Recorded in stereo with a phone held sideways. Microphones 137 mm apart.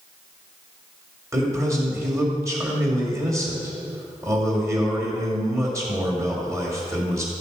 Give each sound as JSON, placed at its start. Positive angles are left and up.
{"t": 1.3, "sound": "a man speaking", "side_deg": -20, "distance_m": 2.5}